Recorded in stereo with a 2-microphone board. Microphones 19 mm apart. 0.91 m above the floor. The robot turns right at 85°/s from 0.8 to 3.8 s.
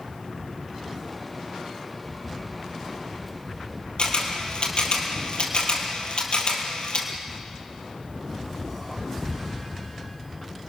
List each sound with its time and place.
4.0 s a camera shutter: 60° left (ahead or behind), 3.5 m